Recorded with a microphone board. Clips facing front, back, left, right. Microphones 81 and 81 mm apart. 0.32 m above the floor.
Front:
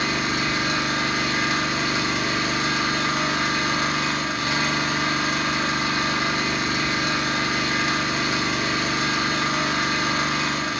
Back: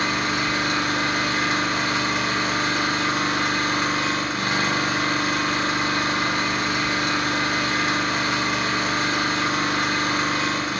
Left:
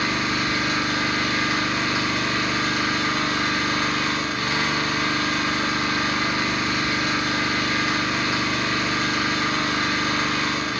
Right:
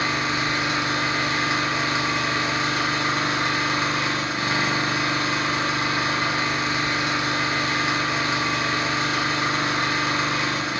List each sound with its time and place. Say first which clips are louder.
0.0 s an engine running: back 1 dB, even; 145° right, 0.8 m